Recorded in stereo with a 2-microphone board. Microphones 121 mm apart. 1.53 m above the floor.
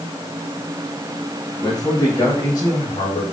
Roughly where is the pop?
I don't hear a pop.